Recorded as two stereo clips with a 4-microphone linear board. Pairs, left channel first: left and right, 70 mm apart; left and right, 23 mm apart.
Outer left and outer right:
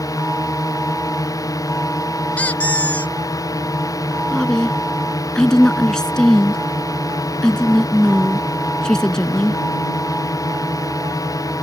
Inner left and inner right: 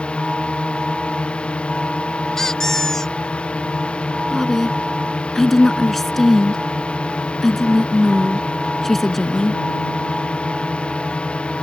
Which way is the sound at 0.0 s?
60° left (ahead or behind).